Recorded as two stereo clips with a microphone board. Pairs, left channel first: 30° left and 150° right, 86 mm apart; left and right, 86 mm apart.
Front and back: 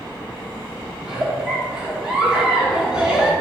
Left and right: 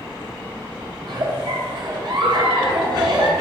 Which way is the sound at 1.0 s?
70° right.